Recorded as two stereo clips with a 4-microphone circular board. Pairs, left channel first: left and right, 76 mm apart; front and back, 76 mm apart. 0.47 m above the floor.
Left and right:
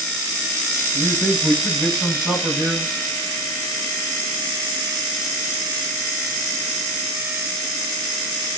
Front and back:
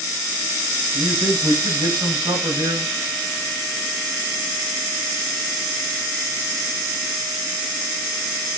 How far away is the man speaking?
About 4 m.